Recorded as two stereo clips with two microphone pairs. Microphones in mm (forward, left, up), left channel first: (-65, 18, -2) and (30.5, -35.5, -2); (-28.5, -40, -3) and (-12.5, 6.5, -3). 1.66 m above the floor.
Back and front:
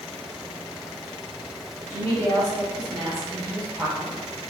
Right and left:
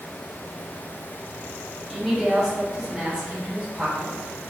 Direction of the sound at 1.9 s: 20° right.